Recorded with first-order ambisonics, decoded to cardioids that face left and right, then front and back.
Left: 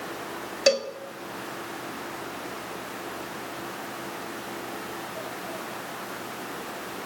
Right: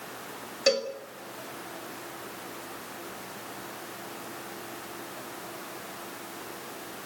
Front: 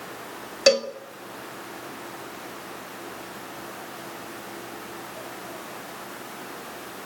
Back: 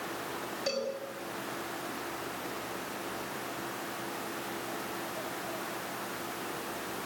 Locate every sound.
0.7 s a cowbell: 25° left, 1.8 m